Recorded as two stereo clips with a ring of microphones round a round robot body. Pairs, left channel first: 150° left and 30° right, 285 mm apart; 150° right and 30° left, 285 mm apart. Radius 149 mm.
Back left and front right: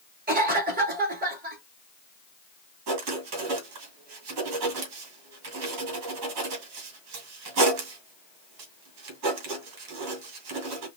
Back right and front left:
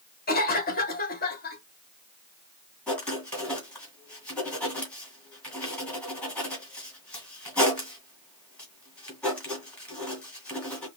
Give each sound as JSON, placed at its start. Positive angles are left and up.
{"t": 0.3, "sound": "a cough", "azimuth_deg": -90, "distance_m": 2.5}
{"t": 2.9, "sound": "writing", "azimuth_deg": -65, "distance_m": 2.5}